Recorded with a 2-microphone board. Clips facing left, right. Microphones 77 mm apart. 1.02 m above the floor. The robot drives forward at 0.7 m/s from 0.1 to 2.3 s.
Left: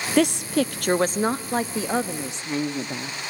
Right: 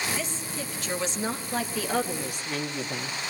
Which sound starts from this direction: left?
A woman speaking, at 0.2 s.